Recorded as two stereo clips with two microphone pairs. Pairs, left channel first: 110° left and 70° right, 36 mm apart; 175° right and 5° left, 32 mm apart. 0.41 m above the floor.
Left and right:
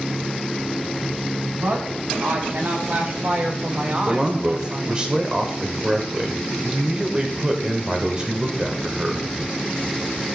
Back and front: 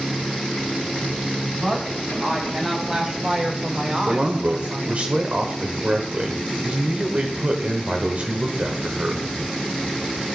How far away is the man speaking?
About 1.1 m.